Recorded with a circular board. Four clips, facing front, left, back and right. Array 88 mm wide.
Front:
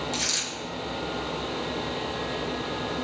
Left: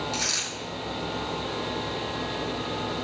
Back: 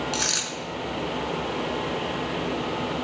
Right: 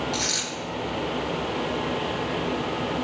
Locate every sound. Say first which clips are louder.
0.1 s a dropped coin: right 3 dB, back 3 dB; 175° left, 3.5 m